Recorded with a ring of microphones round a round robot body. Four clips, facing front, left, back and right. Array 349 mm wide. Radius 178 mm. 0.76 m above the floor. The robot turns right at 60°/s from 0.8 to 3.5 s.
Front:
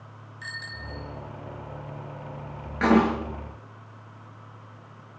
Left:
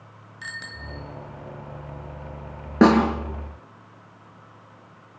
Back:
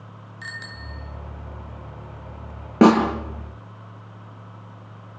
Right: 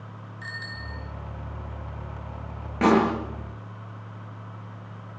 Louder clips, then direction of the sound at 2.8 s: Left 4 dB, back 6 dB; 140° left.